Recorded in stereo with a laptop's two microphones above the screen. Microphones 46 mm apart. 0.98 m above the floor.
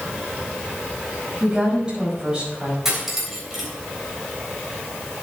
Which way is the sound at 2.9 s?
5° right (ahead or behind).